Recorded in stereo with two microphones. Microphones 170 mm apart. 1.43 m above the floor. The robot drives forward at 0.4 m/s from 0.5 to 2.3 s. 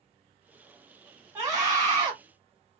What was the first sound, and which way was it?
A scream, 20° right (ahead or behind).